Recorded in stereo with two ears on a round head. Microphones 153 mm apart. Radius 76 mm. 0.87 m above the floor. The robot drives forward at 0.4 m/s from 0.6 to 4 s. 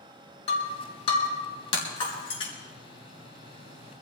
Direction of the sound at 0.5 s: 35° left (ahead or behind).